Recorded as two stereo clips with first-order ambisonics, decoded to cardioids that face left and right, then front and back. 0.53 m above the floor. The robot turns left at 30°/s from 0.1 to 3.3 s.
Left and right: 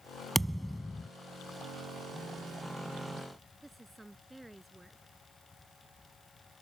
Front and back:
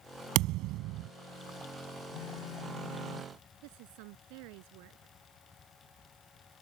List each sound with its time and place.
0.3 s a thud: 175° right; by 1.1 s 165° left
2.1 s a phone buzzing: 5° left; by 3.4 s 30° right
3.6 s a woman speaking: 175° right